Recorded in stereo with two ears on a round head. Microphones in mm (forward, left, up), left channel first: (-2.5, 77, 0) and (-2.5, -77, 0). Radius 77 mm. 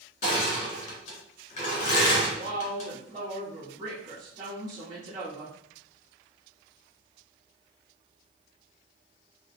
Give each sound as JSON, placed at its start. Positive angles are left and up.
{"t": 0.2, "sound": "crushing", "side_deg": 45, "distance_m": 1.6}
{"t": 2.3, "sound": "a woman speaking", "side_deg": -25, "distance_m": 1.1}